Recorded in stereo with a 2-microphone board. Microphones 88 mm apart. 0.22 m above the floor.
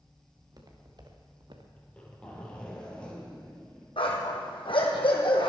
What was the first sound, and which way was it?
Footsteps, 45° right (ahead or behind).